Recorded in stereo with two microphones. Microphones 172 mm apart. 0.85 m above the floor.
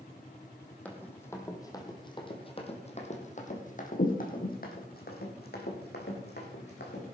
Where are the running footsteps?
10° left (ahead or behind), 2 m; by 7.0 s 75° left (ahead or behind), 3.5 m.